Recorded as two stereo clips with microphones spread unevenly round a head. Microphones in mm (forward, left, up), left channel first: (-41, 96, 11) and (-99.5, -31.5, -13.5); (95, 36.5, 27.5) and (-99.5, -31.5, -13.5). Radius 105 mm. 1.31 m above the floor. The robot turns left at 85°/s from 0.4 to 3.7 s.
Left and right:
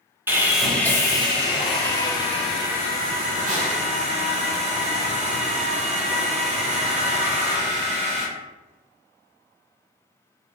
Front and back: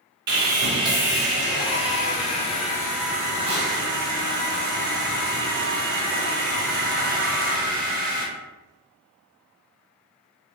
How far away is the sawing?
About 1.4 m.